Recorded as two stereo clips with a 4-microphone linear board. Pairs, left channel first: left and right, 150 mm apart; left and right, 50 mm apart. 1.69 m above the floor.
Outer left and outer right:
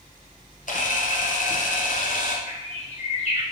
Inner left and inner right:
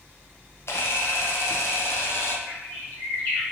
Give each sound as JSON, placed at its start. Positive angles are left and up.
{"t": 0.7, "sound": "a camera shutter", "side_deg": 60, "distance_m": 0.7}
{"t": 2.5, "sound": "a bird", "side_deg": 50, "distance_m": 1.5}